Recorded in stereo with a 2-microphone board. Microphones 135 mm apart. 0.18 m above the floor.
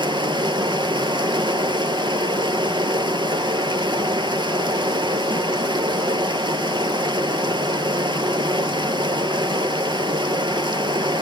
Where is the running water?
35° right (ahead or behind), 1.2 m.